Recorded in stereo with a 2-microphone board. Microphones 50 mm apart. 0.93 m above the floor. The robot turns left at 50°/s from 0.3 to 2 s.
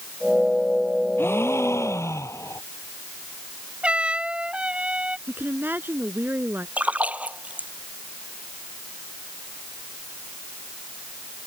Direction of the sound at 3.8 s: 25° right (ahead or behind).